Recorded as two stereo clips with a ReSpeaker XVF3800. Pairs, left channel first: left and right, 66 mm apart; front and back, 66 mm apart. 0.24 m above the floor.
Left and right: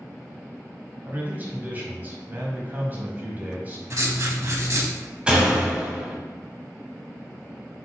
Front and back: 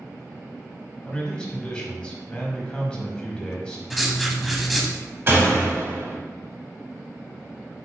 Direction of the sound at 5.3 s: 155° right.